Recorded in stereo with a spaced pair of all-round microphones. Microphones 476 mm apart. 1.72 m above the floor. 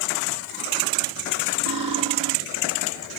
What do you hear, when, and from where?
1.7 s cutlery clinking: 60° right (ahead or behind), 1.7 m